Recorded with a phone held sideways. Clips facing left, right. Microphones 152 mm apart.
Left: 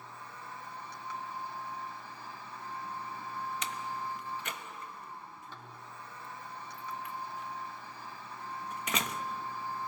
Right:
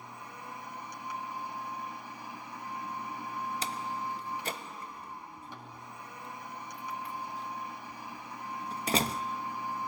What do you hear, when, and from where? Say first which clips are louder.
0.0 s a machine running: right 2 dB; 15° right (ahead or behind), 3 m
3.6 s a door slam: right 2 dB; 35° right (ahead or behind), 1.0 m